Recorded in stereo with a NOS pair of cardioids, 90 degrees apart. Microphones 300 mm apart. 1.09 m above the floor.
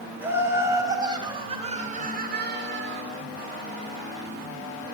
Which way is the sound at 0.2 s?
5° right.